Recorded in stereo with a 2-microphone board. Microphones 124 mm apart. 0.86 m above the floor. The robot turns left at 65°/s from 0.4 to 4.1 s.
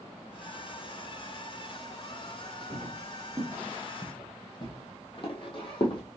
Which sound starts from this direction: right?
Footsteps, at 2.7 s.